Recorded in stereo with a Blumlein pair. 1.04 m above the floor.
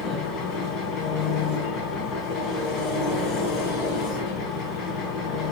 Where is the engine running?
35° left, 3 m.